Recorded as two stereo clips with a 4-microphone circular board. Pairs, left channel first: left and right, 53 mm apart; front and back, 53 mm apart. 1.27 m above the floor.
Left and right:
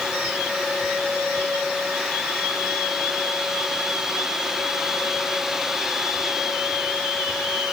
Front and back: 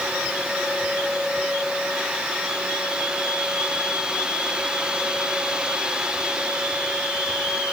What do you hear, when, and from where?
Only background noise.